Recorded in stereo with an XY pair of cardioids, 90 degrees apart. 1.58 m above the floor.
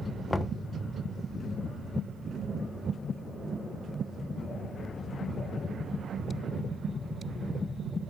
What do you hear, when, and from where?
0.3 s knocking: 25° left, 0.6 m